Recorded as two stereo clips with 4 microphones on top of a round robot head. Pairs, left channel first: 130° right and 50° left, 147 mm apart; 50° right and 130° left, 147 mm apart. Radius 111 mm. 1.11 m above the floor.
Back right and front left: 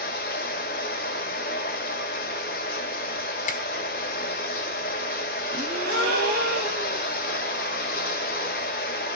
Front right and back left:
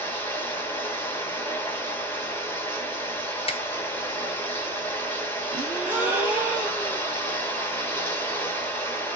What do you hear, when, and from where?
0.0 s running water: 120° right, 0.9 m
3.5 s a finger snap: 100° right, 1.0 m
5.5 s a gasp: 55° left, 1.3 m